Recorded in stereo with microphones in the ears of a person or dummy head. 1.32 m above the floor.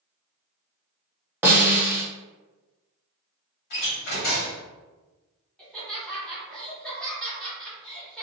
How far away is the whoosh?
No whoosh in this recording.